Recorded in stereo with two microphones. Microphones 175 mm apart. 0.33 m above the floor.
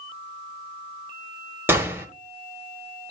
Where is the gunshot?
10° right (ahead or behind), 1.2 m.